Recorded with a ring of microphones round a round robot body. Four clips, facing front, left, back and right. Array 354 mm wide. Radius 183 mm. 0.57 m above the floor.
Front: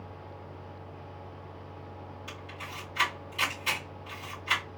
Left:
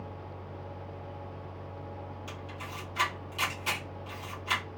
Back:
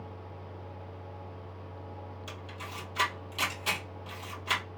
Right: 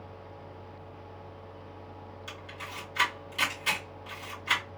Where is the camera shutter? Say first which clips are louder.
Left 1 dB, even; 155° right, 2.5 m.